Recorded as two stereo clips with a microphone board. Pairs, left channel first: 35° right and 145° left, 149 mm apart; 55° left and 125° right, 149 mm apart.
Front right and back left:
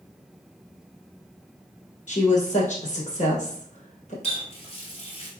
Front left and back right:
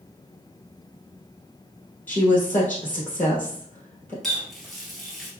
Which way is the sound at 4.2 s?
35° right.